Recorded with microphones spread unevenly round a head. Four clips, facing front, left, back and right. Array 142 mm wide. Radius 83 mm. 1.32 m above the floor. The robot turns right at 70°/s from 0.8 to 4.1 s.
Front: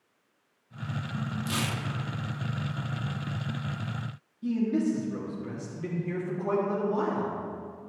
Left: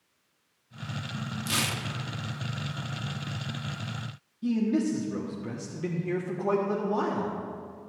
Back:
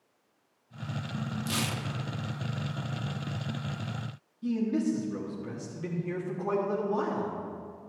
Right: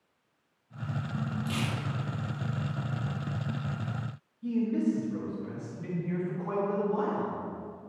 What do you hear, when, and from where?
1.5 s tearing paper: 35° left, 0.7 m; by 1.9 s 65° left, 0.7 m
4.4 s a man speaking: 135° left, 1.3 m